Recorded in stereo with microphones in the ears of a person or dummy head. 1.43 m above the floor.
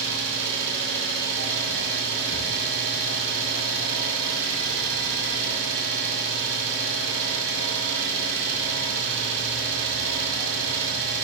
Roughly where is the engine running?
Right.